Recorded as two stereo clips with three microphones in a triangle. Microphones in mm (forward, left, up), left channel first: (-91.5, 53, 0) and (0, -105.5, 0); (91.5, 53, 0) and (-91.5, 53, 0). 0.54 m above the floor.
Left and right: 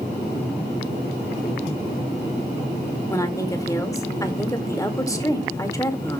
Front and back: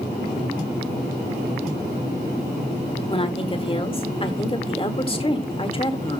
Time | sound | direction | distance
3.1 | a woman speaking | 50° left | 1.8 m